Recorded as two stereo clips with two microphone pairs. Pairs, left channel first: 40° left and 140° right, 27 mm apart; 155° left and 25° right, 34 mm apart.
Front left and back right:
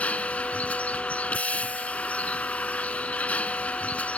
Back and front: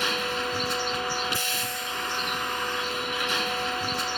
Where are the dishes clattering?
I don't hear dishes clattering.